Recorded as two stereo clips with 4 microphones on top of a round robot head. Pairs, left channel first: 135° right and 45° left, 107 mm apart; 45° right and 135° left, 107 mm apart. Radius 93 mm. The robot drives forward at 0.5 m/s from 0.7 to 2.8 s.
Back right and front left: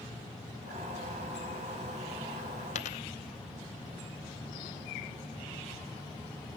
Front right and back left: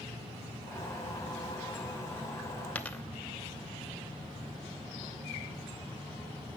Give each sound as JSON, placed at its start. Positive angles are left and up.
{"t": 2.8, "sound": "a dropped coin", "azimuth_deg": -120, "distance_m": 0.8}